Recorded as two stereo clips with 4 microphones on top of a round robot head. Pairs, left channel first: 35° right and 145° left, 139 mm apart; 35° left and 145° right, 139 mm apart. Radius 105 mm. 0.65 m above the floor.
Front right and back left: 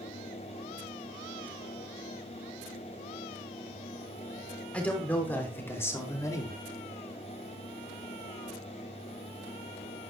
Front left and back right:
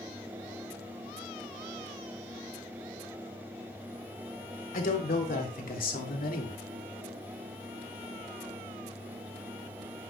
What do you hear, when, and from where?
4.7 s a man speaking: 45° left, 3.5 m; by 6.6 s 30° left, 2 m